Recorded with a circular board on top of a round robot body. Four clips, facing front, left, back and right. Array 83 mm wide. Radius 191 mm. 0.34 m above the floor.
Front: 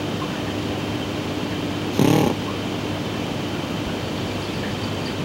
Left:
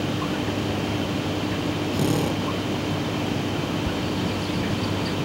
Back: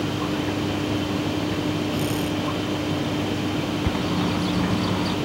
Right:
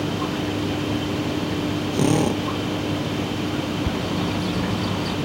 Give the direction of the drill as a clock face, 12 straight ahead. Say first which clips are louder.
Right 5 dB, front 7 dB; 1 o'clock.